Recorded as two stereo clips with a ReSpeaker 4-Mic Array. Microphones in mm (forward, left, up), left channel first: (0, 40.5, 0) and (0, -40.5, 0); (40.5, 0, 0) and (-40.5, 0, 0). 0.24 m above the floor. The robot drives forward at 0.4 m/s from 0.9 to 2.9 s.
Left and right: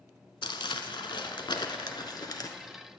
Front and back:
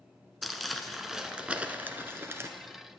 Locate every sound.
0.4 s crumpling: 90° left, 0.9 m; by 2.5 s 125° left, 1.1 m